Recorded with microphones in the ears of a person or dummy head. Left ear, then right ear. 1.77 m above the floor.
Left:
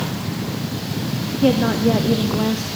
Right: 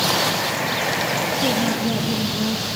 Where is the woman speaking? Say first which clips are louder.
Left 3 dB; 25° left (ahead or behind), 0.5 m.